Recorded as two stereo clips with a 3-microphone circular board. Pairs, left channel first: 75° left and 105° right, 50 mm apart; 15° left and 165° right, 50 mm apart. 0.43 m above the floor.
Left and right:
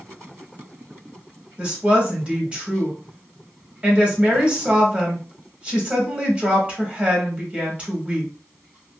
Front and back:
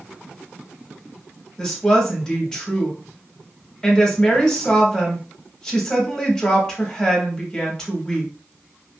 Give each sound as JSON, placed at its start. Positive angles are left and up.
{"t": 1.6, "sound": "a woman speaking", "azimuth_deg": -55, "distance_m": 1.4}